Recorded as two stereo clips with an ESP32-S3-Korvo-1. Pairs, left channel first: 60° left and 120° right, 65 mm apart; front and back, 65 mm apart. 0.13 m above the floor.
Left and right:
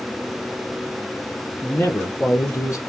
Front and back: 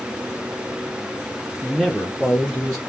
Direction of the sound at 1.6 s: 90° left.